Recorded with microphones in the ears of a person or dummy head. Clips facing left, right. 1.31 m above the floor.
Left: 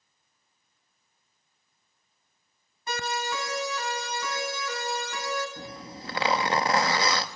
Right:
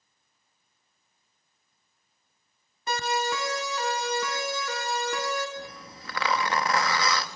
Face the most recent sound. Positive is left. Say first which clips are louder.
# left 1 dB
turn(degrees=30)  # may be behind; listen again after turning